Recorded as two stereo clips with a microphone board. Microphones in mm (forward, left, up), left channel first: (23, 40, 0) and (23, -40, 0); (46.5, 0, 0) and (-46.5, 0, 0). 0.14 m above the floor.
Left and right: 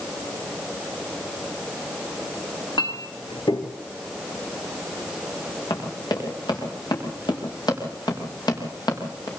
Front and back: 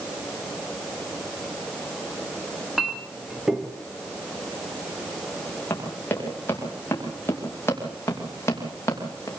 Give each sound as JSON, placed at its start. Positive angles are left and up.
{"t": 2.8, "sound": "a clink", "azimuth_deg": 95, "distance_m": 2.5}
{"t": 5.7, "sound": "running footsteps", "azimuth_deg": 65, "distance_m": 8.0}